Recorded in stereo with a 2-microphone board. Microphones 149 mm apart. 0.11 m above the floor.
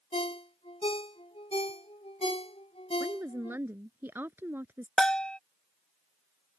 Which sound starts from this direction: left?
A ringtone, at 0.1 s.